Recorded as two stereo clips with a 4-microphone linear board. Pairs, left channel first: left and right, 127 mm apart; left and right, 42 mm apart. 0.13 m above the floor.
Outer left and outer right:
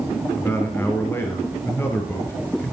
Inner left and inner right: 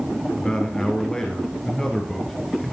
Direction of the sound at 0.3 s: 15° left (ahead or behind).